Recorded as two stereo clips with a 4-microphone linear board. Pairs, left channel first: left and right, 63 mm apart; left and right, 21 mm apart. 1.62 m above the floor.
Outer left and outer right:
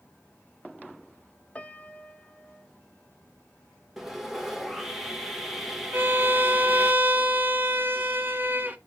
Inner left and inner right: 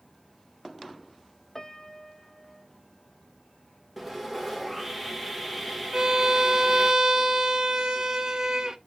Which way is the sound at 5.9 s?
30° right (ahead or behind).